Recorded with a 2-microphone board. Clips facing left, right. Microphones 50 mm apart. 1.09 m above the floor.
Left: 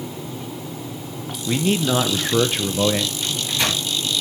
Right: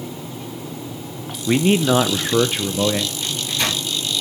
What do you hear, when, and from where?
1.5 s a man speaking: 30° right (ahead or behind), 0.6 m; by 3.1 s 5° left (ahead or behind), 0.8 m
3.2 s a microwave: 15° left (ahead or behind), 7 m